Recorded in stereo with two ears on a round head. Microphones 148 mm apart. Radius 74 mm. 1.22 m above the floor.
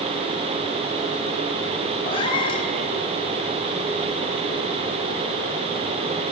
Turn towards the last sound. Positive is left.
turn(degrees=35)  # may be behind; listen again after turning